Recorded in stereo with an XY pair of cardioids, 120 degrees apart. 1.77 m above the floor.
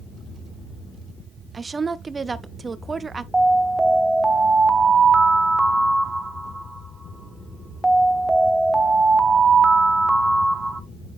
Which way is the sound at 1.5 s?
25° right.